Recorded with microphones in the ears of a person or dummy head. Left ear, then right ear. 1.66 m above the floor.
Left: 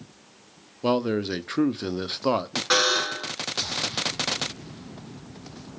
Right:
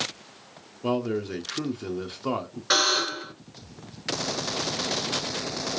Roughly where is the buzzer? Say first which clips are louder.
Even; centre.